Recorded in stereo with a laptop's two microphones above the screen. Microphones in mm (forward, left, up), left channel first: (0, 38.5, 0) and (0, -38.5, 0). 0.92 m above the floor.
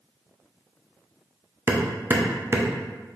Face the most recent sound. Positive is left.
turn(degrees=-30)  # may be behind; listen again after turning